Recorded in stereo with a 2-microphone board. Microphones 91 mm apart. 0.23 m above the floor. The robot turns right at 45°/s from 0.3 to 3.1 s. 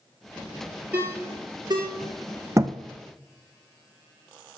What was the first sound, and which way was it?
A ringtone, 15° right (ahead or behind).